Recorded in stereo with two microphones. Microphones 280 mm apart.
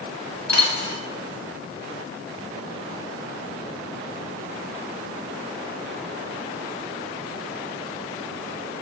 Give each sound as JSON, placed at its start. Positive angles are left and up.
{"t": 0.5, "sound": "a dropped coin", "side_deg": 70, "distance_m": 2.5}